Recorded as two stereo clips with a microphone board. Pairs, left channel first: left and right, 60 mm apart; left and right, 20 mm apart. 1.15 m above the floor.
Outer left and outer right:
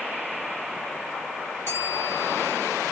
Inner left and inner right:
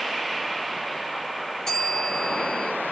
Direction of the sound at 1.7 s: 45° left (ahead or behind).